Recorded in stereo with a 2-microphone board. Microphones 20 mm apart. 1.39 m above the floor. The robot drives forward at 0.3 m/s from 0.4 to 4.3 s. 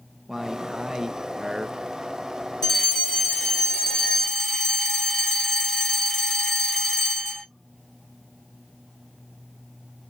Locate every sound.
0.3 s a man speaking: 15° right (ahead or behind), 0.9 m; by 1.8 s 25° right (ahead or behind), 0.5 m
2.6 s a fire alarm: 30° left (ahead or behind), 1.9 m; by 7.5 s 40° left (ahead or behind), 1.5 m